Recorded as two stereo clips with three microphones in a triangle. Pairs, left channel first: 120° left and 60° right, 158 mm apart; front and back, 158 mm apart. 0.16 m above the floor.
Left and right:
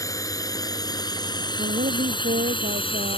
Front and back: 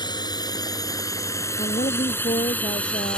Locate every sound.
0.0 s a drone: 55° left; by 3.2 s 80° left
1.6 s a woman speaking: 40° right